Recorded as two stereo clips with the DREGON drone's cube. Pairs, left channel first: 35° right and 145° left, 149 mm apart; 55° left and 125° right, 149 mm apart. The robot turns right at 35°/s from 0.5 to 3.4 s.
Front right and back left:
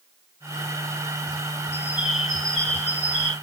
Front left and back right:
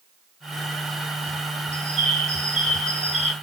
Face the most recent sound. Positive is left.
turn(degrees=-90)